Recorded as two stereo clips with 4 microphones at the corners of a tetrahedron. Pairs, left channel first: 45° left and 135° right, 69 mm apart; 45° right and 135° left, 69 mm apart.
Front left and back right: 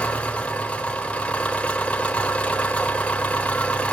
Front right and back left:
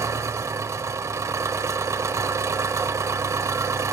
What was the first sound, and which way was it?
An engine running, 110° left.